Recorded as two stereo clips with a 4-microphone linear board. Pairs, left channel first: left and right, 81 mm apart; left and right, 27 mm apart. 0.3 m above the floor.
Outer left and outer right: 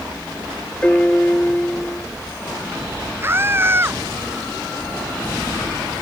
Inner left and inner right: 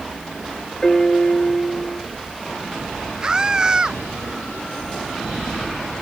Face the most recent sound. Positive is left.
turn(degrees=-30)  # may be behind; listen again after turning